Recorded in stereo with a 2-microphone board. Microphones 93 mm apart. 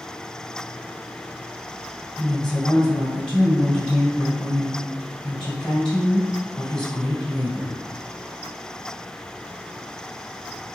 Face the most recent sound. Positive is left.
turn(degrees=10)  # may be behind; listen again after turning